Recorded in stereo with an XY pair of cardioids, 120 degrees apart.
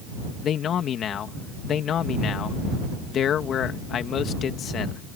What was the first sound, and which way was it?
A man speaking, 55° left.